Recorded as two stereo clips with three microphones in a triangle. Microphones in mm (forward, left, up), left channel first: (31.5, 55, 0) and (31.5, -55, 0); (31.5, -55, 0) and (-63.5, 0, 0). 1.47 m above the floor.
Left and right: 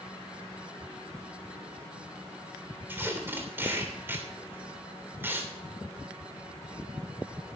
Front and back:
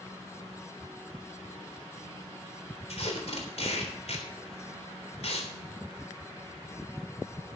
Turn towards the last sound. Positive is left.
turn(degrees=-20)